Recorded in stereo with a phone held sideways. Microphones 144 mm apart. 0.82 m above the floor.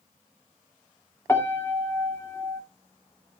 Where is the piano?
15° left (ahead or behind), 1.9 m.